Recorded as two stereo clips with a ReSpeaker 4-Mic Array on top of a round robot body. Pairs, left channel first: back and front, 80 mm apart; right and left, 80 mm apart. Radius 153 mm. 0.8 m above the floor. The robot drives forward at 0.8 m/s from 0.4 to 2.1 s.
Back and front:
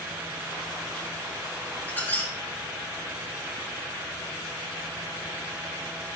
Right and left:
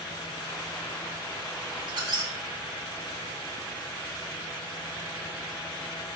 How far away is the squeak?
About 2 m.